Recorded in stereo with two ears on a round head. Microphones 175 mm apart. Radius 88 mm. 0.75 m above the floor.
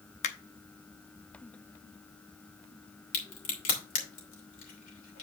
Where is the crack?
45° left (ahead or behind), 2.5 m.